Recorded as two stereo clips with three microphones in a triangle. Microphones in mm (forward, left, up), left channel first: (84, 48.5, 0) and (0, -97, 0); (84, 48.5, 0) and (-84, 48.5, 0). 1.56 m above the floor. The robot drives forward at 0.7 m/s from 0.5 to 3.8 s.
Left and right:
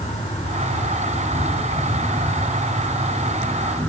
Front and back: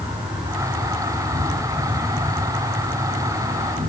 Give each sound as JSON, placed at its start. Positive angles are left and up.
{"t": 0.0, "sound": "an insect", "azimuth_deg": 100, "distance_m": 3.0}